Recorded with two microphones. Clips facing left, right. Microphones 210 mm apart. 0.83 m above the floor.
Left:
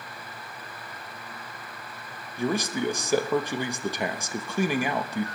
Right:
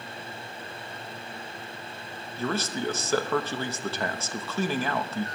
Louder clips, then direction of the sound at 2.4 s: Left 3 dB; 15° left (ahead or behind).